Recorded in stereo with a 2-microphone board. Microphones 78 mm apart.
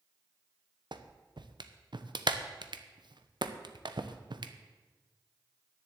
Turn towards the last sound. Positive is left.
turn(degrees=-65)  # may be behind; listen again after turning